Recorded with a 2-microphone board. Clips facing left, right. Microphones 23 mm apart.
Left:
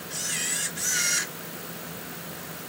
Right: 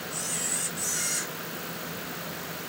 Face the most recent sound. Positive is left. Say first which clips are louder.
# left 4 dB
turn(degrees=60)  # may be behind; listen again after turning